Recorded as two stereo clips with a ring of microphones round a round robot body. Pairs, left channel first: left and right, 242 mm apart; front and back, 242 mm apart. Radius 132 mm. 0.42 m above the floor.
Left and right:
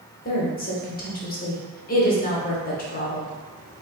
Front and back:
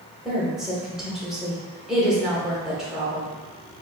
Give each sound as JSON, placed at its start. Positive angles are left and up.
{"t": 0.2, "sound": "a woman speaking", "azimuth_deg": 95, "distance_m": 1.0}